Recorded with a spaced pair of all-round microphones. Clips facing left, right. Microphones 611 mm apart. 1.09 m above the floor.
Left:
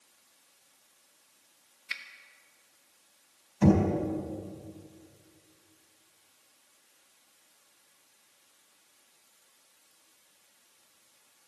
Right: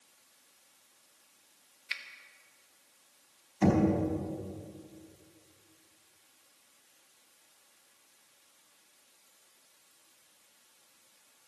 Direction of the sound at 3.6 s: 35° left (ahead or behind).